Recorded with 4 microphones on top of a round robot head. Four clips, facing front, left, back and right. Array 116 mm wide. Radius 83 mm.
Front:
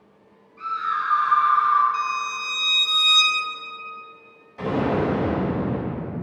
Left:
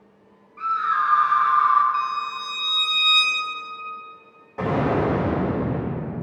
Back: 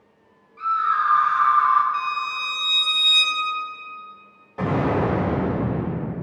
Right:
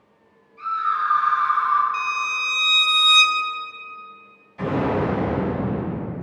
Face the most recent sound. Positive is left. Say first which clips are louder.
# left 1 dB, back 1 dB
turn(degrees=125)